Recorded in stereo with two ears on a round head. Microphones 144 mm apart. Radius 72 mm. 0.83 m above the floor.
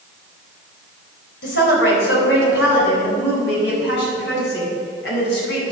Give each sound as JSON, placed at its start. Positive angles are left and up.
{"t": 1.4, "sound": "a woman speaking", "side_deg": 80, "distance_m": 5.0}